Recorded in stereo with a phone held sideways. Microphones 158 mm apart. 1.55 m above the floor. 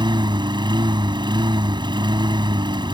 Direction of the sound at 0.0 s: 30° right (ahead or behind).